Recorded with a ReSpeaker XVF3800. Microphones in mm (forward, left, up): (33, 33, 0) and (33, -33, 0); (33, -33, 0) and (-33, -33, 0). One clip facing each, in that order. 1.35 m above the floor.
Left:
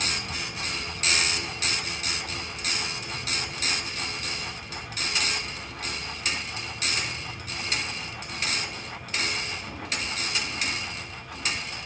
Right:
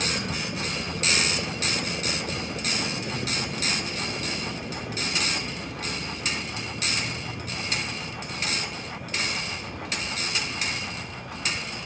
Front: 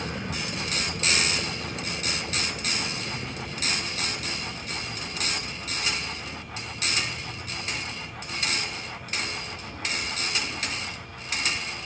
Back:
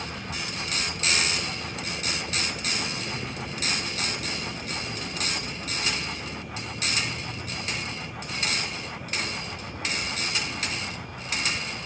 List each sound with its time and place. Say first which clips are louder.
0.0 s a vehicle: right 3 dB, front 2 dB; 65° right; by 11.9 s 125° right